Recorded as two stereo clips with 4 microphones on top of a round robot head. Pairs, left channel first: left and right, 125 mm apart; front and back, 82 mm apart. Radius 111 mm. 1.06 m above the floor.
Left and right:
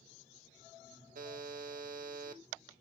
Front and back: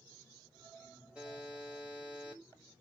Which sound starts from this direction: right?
A buzzer, at 1.1 s.